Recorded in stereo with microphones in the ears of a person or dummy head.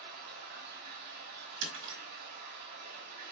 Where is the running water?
50° right (ahead or behind), 0.9 m.